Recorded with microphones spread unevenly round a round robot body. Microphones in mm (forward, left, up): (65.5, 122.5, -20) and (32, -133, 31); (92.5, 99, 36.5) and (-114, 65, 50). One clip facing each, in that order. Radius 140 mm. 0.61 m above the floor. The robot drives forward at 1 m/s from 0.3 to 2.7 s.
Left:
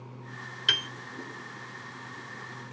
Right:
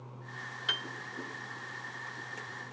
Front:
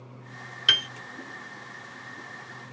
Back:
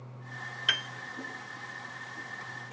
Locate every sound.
0.7 s a piano: 50° left; by 0.9 s 70° left